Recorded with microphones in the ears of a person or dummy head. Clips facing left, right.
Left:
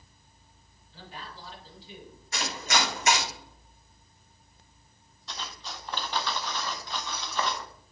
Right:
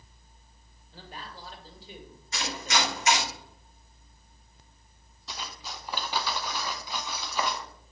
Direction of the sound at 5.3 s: 5° right (ahead or behind).